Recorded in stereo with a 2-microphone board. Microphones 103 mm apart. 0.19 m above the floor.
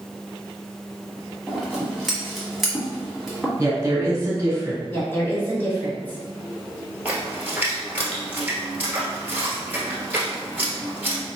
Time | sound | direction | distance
1.5 | scissors | centre (ahead or behind) | 1.3 m
3.6 | a woman speaking | 25° right (ahead or behind) | 1.9 m
4.9 | a woman speaking | 20° left (ahead or behind) | 1.3 m
7.0 | a splash | 20° right (ahead or behind) | 1.1 m